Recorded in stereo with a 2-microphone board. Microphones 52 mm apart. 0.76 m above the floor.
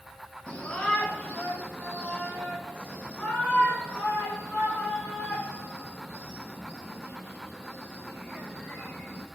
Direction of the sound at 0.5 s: 25° left (ahead or behind).